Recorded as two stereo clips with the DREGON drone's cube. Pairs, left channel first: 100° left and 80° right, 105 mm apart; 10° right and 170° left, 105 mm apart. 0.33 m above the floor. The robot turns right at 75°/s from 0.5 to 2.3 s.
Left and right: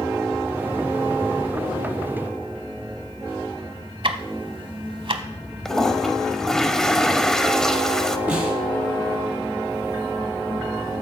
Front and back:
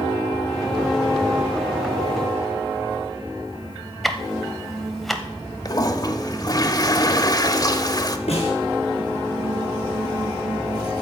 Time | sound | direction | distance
4.0 | ticking | 100° right | 0.9 m
5.7 | a toilet flushing | 20° left | 0.8 m
8.3 | a snare drum | straight ahead | 4.5 m